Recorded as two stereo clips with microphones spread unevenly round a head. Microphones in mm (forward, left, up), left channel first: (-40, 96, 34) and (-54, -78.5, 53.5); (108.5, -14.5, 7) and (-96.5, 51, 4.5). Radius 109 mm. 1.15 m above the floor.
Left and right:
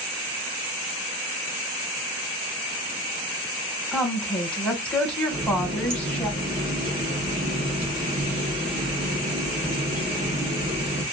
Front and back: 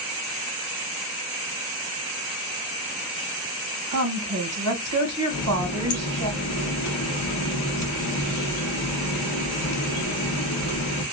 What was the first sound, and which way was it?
A woman speaking, 165° left.